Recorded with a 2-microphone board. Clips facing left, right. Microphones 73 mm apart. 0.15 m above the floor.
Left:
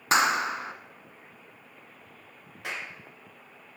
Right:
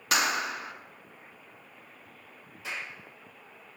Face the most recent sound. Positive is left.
turn(degrees=60)  # may be behind; listen again after turning